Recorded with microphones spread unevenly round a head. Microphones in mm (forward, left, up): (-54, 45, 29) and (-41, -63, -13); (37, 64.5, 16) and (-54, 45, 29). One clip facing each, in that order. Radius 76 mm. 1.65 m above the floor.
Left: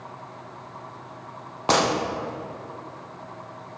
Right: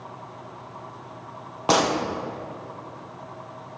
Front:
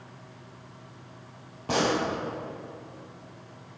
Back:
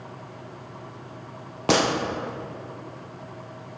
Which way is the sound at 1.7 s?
165° right.